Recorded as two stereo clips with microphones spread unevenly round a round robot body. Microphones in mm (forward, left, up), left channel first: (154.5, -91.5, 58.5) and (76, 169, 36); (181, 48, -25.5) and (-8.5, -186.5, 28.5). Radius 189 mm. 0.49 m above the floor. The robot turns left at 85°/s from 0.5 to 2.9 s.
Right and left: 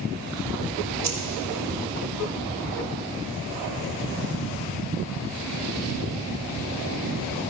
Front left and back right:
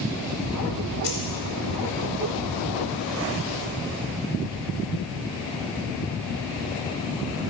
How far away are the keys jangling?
About 1.7 m.